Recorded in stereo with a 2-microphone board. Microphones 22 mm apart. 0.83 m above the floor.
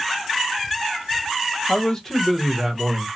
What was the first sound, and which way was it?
A man speaking, 40° left (ahead or behind).